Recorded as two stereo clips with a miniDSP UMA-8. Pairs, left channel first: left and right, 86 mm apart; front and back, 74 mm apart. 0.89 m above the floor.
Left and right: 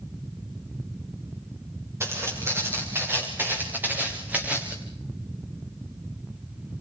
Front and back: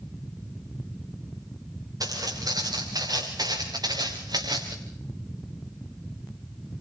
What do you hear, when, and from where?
2.0 s footsteps: 150° right, 8 m; by 4.8 s 165° right, 5 m